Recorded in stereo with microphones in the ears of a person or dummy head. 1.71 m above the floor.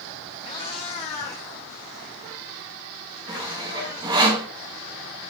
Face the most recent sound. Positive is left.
turn(degrees=-20)  # may be behind; listen again after turning